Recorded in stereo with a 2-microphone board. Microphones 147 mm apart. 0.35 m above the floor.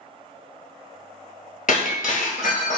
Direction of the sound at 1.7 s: 65° left (ahead or behind).